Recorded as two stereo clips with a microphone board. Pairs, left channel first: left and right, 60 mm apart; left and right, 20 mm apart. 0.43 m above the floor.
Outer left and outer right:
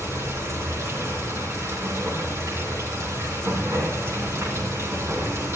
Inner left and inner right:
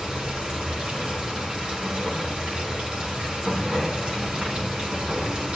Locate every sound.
0.0 s running water: 55° right (ahead or behind), 4 m